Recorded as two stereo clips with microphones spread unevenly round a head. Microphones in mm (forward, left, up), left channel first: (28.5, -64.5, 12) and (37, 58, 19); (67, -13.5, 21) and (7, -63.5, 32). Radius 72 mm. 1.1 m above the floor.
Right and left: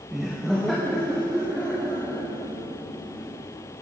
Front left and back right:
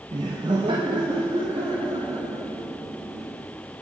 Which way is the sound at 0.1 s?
175° left.